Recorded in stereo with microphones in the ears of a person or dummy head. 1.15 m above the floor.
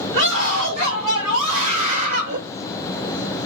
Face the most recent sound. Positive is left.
turn(degrees=-50)  # may be behind; listen again after turning